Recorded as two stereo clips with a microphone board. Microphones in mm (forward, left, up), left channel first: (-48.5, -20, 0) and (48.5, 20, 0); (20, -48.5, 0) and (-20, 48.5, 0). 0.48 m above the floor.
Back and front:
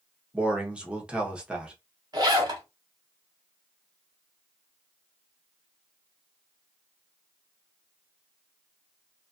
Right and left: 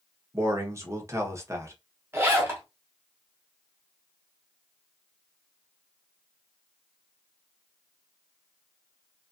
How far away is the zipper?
About 1.3 m.